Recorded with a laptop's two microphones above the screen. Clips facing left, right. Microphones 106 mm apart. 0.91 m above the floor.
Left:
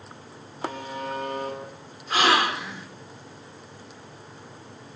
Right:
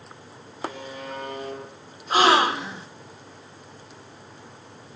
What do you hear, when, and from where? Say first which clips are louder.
0.6 s a buzzer: left 2 dB; 35° left (ahead or behind), 9.5 m
2.1 s a gasp: right 4 dB; 30° right (ahead or behind), 1.6 m